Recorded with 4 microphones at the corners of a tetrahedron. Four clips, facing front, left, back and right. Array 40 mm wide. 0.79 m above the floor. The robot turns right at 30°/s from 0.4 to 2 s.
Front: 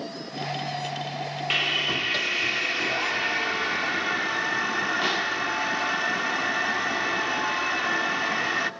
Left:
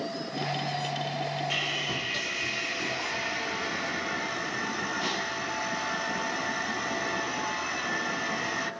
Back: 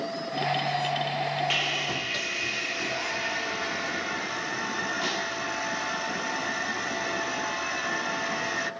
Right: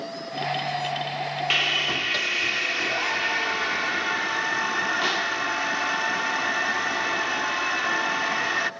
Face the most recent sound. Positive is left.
turn(degrees=-55)